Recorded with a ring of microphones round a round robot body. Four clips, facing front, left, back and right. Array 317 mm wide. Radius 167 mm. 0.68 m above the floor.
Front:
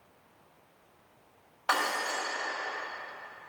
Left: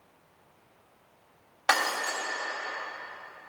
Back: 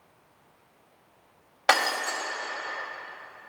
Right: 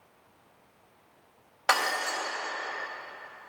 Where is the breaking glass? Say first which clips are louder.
Even, back 5 dB; 175° right, 2.5 m.